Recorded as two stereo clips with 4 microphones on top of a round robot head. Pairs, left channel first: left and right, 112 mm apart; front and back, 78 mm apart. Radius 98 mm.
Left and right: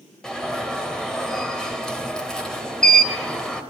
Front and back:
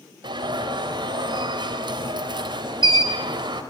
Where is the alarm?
175° left, 3.5 m.